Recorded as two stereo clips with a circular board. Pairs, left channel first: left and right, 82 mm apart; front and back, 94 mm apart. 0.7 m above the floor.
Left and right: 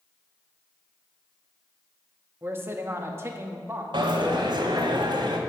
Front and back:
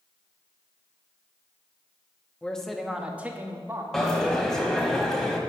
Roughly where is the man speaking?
Right.